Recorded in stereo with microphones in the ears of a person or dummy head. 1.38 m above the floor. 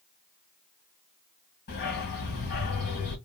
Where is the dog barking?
50° left (ahead or behind), 2.5 m.